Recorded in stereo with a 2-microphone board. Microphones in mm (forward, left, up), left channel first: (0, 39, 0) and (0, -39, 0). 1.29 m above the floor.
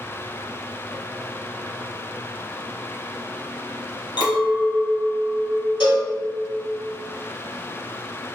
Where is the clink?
75° left (ahead or behind), 0.9 m.